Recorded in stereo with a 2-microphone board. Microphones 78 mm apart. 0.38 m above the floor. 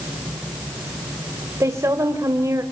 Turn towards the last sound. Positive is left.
turn(degrees=-40)  # may be behind; listen again after turning